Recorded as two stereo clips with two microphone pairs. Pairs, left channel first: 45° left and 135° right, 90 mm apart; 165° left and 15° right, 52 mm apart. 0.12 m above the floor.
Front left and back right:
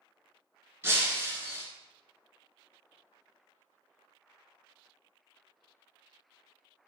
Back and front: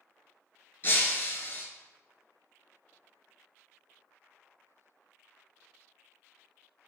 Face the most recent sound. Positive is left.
turn(degrees=180)